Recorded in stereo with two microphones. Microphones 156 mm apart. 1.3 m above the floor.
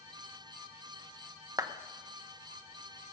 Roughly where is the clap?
Right.